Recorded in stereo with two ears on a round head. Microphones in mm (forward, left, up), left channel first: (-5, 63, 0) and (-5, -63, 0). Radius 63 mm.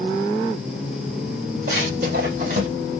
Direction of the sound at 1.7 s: 65° right (ahead or behind).